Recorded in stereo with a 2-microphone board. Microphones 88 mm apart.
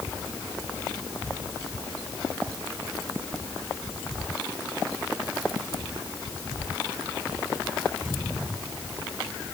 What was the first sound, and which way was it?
Only background noise.